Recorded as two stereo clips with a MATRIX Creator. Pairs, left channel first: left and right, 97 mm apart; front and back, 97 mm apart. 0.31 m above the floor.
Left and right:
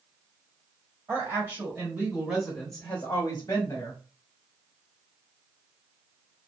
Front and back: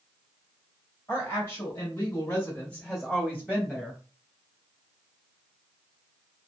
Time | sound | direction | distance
1.1 | a woman speaking | 50° right | 1.6 m